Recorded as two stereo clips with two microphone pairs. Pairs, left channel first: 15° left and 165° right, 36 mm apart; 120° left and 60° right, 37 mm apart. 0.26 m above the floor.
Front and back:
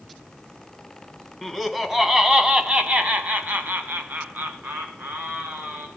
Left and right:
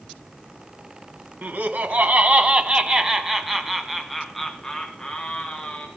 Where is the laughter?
70° right, 2 m; by 5.9 s 175° right, 3.5 m.